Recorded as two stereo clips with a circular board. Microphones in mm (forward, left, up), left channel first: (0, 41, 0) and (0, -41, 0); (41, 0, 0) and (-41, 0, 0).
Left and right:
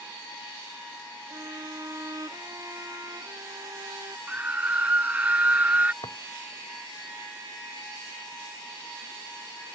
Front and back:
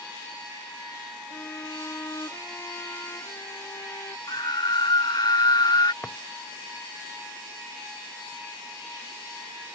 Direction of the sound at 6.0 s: 75° left.